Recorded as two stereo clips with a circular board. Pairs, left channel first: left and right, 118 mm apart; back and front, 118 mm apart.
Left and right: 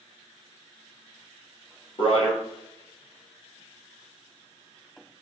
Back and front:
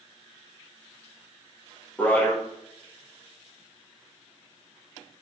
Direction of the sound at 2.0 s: 110° left.